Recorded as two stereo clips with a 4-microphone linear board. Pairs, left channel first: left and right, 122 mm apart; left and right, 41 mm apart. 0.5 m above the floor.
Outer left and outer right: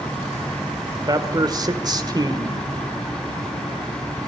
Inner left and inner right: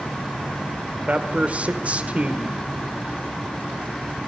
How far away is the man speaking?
About 1.9 m.